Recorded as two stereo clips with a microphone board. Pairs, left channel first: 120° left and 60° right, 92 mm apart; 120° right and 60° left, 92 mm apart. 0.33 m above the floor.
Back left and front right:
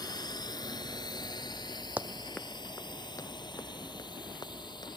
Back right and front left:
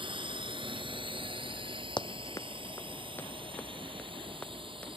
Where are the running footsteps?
130° right; by 5.0 s 165° left.